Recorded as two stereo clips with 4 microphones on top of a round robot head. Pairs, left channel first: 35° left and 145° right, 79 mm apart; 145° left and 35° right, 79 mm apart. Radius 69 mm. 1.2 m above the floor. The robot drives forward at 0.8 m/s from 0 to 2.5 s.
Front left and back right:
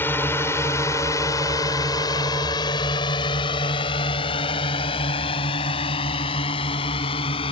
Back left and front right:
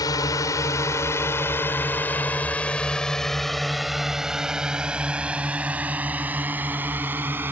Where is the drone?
100° left; by 7.5 s 35° left.